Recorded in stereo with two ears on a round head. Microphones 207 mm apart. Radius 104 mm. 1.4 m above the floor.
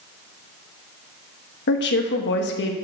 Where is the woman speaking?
50° left (ahead or behind), 1.0 m.